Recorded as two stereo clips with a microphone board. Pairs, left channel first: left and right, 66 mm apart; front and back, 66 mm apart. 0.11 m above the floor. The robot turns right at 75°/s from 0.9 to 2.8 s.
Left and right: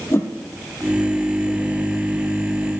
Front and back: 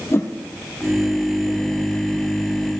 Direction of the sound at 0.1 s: 45° left.